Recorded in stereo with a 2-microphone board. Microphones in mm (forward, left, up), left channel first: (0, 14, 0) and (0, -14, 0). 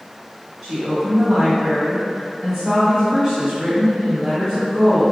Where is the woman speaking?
10° right (ahead or behind), 1.4 m.